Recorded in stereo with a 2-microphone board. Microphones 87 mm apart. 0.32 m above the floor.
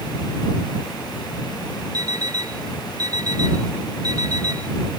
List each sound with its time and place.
1.9 s an alarm clock: 45° right (ahead or behind)